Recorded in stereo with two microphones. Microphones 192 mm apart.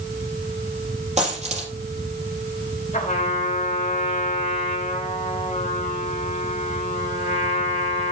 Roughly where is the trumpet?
Left.